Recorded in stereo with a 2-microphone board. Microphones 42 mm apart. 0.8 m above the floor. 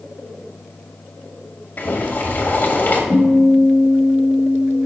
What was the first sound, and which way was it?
Boiling, 50° left (ahead or behind).